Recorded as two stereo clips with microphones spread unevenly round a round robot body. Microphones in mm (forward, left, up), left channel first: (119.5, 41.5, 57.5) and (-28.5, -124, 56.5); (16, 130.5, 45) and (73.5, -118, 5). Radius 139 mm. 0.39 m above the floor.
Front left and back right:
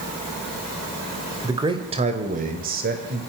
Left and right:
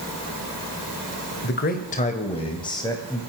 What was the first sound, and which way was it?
A man speaking, 155° left.